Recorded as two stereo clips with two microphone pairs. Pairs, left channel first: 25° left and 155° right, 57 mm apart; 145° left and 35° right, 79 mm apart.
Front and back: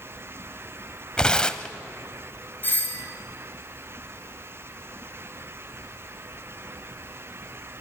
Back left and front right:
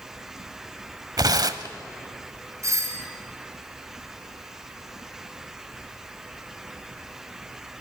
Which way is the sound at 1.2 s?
50° right.